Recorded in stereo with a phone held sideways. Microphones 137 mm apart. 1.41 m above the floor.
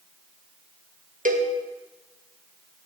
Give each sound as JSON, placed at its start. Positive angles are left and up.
{"t": 1.2, "sound": "a cowbell", "side_deg": -80, "distance_m": 1.6}